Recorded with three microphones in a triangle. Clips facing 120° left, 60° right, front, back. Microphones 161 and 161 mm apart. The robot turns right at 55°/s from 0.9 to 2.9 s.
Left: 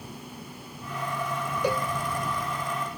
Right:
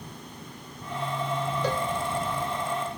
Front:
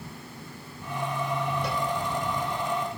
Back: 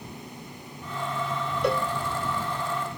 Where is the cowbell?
165° right; by 1.9 s 155° right.